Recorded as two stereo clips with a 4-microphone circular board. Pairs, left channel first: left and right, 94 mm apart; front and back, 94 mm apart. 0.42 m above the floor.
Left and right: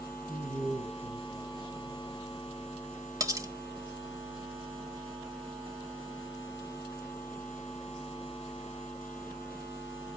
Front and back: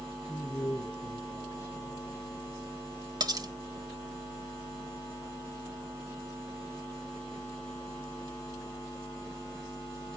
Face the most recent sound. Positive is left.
turn(degrees=-140)